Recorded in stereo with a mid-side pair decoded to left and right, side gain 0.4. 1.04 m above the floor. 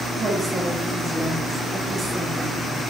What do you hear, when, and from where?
0.1 s a woman speaking: 35° right, 3 m